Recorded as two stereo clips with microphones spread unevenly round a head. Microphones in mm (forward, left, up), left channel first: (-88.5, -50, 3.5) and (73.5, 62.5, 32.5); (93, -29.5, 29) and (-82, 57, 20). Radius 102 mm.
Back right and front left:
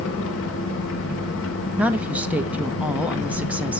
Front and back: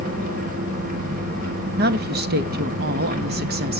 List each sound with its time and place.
0.0 s an engine running: 160° right, 3.5 m
1.8 s a woman speaking: 120° left, 1.4 m